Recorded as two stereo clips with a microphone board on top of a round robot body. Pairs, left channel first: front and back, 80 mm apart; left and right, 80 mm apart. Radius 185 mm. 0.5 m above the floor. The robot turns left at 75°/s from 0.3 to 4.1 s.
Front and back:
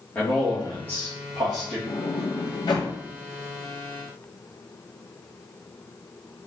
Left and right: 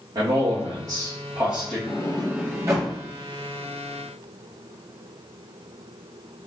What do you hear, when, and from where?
0.1 s a man speaking: 65° right, 1.6 m; by 1.8 s 175° right, 1.6 m
1.9 s a sliding door: 25° left, 0.6 m; by 2.9 s 55° right, 0.6 m